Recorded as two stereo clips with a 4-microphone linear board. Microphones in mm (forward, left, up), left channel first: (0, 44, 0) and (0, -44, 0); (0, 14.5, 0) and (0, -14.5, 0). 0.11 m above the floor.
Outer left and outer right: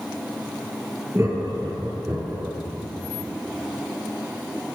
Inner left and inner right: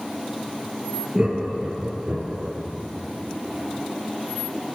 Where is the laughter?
35° right (ahead or behind), 2 m; by 2.5 s 30° right (ahead or behind), 2.5 m.